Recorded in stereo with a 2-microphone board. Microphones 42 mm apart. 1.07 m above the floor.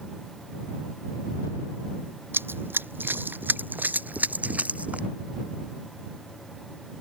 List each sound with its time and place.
2.3 s running footsteps: 65° right (ahead or behind); by 5.1 s 35° right (ahead or behind)